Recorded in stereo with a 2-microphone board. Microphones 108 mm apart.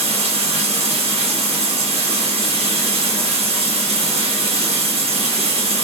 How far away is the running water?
About 1.8 m.